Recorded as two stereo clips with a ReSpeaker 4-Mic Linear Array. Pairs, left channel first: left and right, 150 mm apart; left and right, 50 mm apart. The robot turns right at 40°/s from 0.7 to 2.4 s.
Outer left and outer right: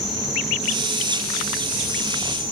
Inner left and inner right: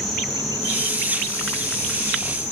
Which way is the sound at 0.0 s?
Straight ahead.